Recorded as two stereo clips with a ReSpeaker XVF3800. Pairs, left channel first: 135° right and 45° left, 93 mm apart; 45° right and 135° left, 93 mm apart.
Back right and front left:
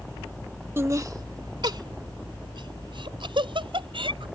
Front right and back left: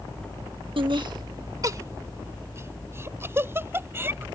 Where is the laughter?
110° left; by 4.2 s 70° left.